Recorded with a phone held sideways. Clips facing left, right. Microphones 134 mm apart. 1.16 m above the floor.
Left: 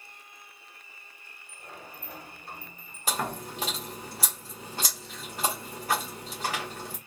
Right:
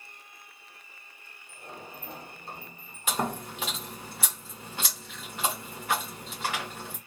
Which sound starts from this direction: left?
Chewing, at 3.1 s.